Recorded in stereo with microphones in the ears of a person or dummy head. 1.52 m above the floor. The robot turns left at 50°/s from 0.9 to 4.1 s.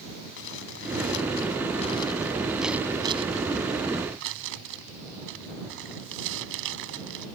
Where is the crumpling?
85° left; by 7.3 s 75° right (ahead or behind).